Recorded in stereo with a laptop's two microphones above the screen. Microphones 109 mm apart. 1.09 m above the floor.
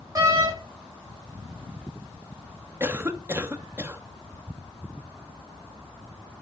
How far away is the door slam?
About 4 m.